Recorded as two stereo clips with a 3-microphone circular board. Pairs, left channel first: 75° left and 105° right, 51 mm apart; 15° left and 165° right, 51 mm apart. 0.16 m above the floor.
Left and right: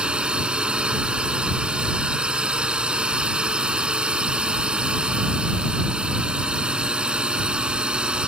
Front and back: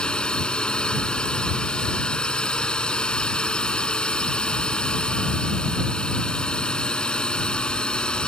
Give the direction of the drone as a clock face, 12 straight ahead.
2 o'clock.